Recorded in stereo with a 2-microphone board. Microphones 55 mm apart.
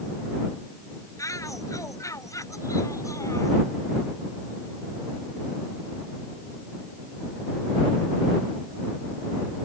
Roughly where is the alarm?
I don't hear an alarm.